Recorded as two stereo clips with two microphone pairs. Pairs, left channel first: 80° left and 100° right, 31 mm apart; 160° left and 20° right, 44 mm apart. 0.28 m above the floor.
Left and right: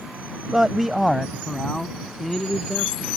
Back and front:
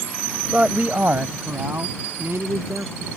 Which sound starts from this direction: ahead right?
A man speaking, at 0.5 s.